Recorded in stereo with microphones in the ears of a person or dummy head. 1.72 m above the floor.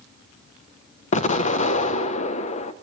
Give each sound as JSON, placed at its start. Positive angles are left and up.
{"t": 1.1, "sound": "an explosion", "side_deg": 40, "distance_m": 0.5}